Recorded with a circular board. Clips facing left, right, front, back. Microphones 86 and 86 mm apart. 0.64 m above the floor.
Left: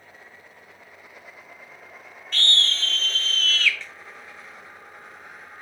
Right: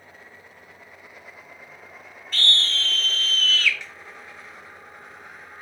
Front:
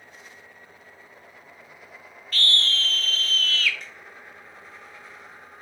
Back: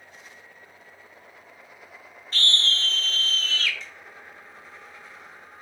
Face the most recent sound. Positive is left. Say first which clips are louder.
# even, even
turn(degrees=-20)